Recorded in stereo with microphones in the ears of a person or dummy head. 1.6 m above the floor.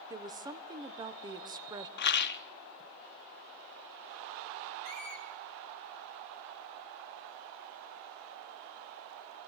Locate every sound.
0.1 s a woman speaking: 20° right (ahead or behind), 1.0 m
2.0 s a rattle: 55° left (ahead or behind), 1.1 m
4.8 s a squeak: 55° right (ahead or behind), 6 m